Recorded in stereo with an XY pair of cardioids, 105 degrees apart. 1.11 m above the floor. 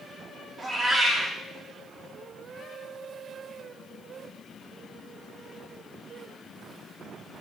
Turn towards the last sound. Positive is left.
turn(degrees=-35)